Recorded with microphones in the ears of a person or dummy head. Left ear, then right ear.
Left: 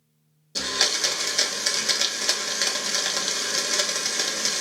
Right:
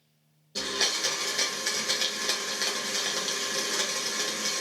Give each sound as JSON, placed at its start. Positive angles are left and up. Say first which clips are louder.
{"t": 0.6, "sound": "a blender", "louder": "left 4 dB", "side_deg": 20, "distance_m": 0.7}